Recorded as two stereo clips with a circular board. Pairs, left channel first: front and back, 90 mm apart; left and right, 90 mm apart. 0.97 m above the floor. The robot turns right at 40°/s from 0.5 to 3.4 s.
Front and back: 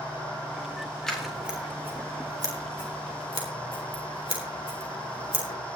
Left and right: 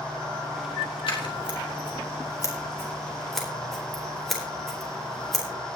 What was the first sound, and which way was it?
Scissors, 85° left.